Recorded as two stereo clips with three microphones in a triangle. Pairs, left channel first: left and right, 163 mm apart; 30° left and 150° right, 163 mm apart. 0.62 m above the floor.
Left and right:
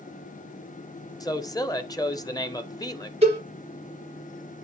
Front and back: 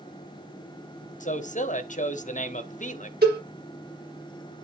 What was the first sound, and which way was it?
A man speaking, 30° left.